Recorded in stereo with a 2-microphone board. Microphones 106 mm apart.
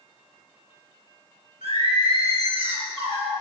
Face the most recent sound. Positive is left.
turn(degrees=-70)  # may be behind; listen again after turning